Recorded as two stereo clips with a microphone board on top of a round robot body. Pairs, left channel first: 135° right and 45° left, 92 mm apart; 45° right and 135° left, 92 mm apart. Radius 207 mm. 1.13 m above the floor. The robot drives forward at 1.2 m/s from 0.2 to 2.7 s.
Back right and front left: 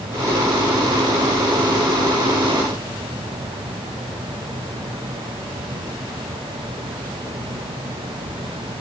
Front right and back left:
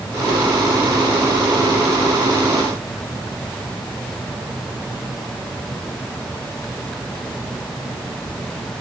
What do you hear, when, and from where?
Only background noise.